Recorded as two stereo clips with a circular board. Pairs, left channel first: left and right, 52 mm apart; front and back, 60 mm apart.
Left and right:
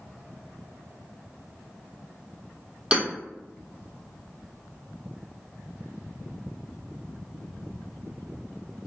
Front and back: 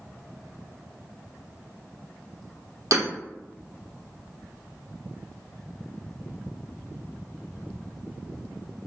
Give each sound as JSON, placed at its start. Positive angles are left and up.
{"t": 2.9, "sound": "hammering", "azimuth_deg": -160, "distance_m": 1.8}